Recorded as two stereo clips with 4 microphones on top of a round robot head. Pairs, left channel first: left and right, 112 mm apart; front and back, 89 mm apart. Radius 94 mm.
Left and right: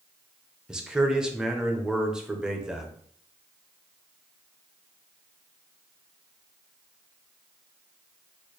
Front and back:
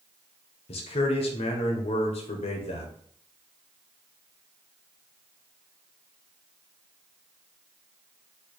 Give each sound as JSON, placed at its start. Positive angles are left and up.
{"t": 0.7, "sound": "a man speaking", "azimuth_deg": -5, "distance_m": 0.7}